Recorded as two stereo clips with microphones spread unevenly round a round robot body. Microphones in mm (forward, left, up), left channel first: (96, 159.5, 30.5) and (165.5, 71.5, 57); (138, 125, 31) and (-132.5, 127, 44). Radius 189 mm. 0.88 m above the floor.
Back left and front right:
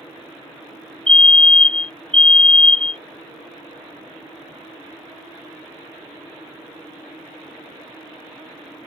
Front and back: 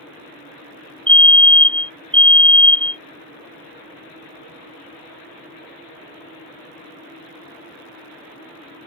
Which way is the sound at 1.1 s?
75° left.